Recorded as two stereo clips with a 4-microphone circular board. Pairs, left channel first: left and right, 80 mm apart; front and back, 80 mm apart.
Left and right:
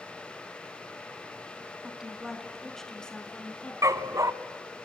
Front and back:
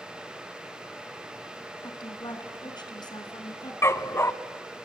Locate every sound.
1.8 s a woman speaking: 10° right, 3 m; by 3.7 s 20° left, 4 m
3.8 s a dog barking: 50° right, 0.9 m